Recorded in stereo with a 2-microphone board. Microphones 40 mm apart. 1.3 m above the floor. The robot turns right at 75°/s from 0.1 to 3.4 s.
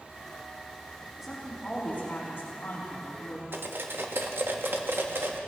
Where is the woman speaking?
10° right, 3.5 m; by 3.4 s 155° left, 3.5 m.